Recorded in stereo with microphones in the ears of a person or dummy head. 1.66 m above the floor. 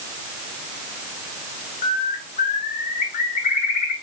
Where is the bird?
45° left (ahead or behind), 0.8 m.